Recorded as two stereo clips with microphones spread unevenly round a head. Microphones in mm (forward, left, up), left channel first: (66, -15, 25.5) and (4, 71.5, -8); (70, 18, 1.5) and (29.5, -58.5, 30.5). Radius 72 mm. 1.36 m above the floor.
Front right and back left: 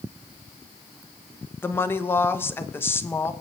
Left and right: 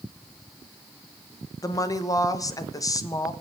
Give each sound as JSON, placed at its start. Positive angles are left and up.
{"t": 1.6, "sound": "a woman speaking", "azimuth_deg": 15, "distance_m": 1.4}